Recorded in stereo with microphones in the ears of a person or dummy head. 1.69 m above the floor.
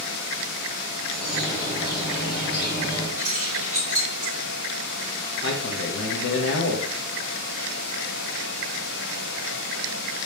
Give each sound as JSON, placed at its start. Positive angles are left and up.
{"t": 1.1, "sound": "a bird", "side_deg": 30, "distance_m": 2.0}
{"t": 3.2, "sound": "keys jangling", "side_deg": -10, "distance_m": 2.5}
{"t": 5.4, "sound": "a man speaking", "side_deg": 65, "distance_m": 0.9}